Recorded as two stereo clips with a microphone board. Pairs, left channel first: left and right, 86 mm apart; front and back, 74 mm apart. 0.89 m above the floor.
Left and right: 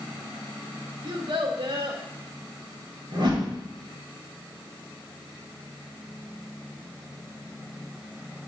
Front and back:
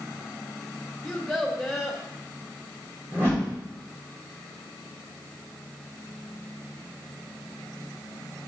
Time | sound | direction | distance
1.0 | a child speaking | 90° right | 1.6 m
3.1 | a whoosh | 120° right | 3 m